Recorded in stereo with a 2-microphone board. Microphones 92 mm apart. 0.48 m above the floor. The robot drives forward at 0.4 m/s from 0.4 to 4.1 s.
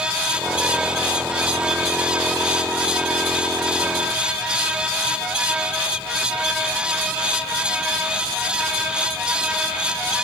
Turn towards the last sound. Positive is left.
No sound to turn to.